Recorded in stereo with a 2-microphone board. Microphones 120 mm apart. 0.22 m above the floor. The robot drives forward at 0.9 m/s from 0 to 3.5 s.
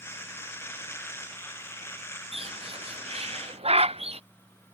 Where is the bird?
55° right (ahead or behind).